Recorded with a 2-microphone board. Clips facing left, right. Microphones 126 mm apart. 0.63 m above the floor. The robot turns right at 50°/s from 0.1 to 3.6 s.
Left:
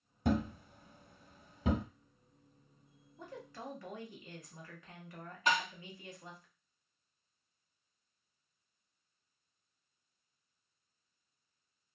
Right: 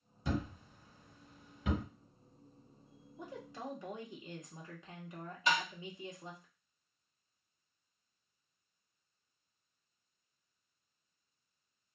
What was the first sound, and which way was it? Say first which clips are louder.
A thud: left 5 dB; 65° left (ahead or behind).